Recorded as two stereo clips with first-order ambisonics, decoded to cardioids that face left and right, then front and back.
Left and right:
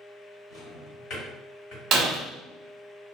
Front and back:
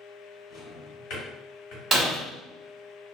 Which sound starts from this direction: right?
Breaking glass, at 1.9 s.